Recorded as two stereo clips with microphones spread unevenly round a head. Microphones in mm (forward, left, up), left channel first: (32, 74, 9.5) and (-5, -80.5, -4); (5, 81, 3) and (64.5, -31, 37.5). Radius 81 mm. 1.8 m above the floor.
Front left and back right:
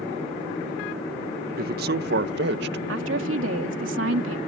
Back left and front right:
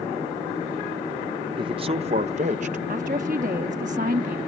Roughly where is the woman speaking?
Right.